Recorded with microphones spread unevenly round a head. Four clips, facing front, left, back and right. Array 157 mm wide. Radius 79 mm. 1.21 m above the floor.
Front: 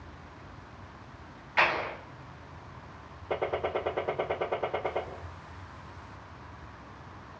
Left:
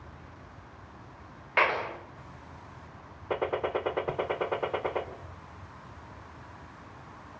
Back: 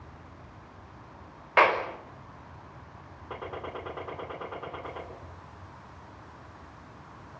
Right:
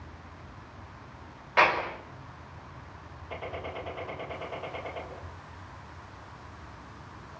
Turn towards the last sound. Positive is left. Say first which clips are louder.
# left 8 dB, front 8 dB
turn(degrees=65)